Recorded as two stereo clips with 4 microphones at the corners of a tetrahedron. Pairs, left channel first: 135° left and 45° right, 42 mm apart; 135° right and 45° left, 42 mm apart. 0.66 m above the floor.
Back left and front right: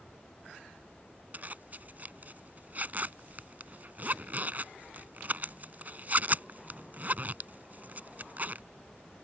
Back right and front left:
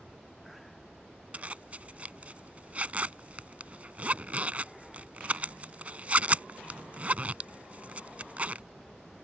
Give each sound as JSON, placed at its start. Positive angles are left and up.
{"t": 1.3, "sound": "a zipper", "azimuth_deg": 0}